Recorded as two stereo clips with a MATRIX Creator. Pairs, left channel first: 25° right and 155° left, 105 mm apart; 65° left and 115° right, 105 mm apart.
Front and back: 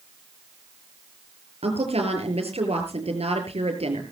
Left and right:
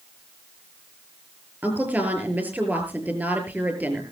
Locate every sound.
1.6 s a woman speaking: 175° left, 6 m